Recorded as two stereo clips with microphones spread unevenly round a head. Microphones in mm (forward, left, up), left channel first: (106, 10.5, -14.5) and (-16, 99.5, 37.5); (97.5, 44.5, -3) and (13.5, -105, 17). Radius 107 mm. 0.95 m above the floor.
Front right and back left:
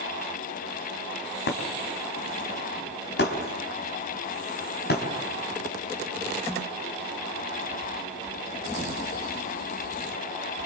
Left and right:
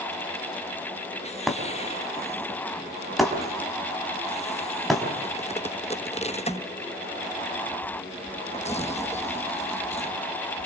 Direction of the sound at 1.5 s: 30° right.